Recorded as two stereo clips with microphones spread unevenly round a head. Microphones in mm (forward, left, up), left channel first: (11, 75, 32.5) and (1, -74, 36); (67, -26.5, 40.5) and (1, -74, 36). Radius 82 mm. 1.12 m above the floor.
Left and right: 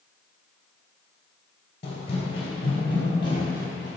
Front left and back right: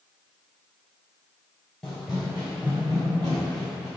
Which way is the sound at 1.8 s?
115° left.